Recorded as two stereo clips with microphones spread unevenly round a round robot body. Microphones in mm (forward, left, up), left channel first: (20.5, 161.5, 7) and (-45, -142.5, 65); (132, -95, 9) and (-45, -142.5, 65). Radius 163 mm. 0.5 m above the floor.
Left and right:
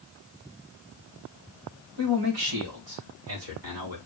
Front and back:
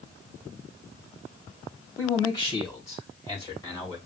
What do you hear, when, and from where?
2.0 s a man speaking: 55° right, 3 m; by 4.0 s 50° right, 4 m